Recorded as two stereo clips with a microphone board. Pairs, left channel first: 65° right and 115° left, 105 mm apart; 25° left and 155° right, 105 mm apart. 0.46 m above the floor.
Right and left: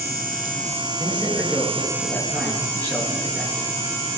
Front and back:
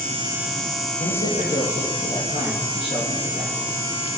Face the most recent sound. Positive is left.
turn(degrees=5)